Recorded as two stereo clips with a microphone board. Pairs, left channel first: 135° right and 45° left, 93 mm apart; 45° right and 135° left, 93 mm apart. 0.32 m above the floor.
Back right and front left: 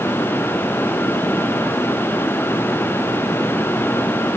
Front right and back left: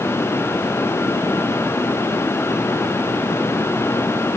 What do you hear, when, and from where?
Only background noise.